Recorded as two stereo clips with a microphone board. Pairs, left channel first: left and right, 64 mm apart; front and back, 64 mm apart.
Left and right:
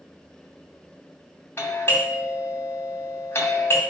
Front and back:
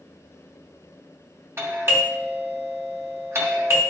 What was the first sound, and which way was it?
A doorbell, 140° left.